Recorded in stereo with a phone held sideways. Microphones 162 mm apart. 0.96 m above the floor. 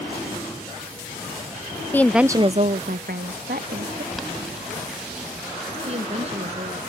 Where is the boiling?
Centre (ahead or behind).